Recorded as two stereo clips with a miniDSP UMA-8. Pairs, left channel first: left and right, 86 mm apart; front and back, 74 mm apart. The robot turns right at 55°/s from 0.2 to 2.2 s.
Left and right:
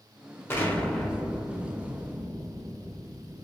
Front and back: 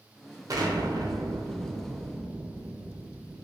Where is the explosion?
150° left, 0.5 m; by 3.4 s 115° right, 0.5 m.